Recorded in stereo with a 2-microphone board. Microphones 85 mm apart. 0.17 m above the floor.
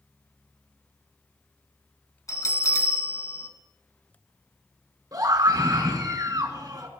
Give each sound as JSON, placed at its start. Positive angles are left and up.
{"t": 2.3, "sound": "a bell", "side_deg": 40, "distance_m": 1.7}
{"t": 5.1, "sound": "a scream", "side_deg": -50, "distance_m": 1.9}